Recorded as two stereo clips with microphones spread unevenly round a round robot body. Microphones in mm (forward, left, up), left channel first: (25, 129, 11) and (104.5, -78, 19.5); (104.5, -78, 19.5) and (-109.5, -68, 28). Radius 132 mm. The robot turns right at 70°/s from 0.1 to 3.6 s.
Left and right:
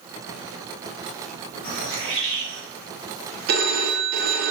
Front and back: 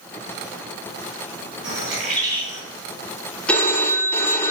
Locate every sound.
1.6 s a bird: 165° right, 1.8 m; by 2.6 s 100° right, 1.8 m
3.5 s a phone ringing: 85° right, 0.6 m; by 4.5 s 75° right, 0.6 m